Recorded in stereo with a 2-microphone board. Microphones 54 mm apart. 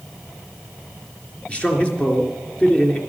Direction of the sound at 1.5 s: 20° left (ahead or behind).